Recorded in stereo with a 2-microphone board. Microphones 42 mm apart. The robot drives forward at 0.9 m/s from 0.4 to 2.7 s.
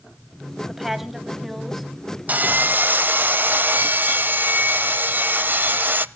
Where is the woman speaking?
5° right (ahead or behind), 1.6 m.